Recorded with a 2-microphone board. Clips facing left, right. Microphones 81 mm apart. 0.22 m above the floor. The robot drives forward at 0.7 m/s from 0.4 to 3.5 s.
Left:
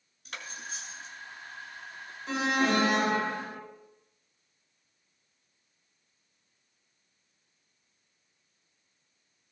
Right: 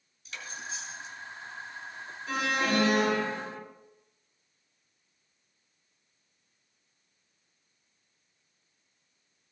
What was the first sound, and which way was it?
Cutlery clinking, 60° left (ahead or behind).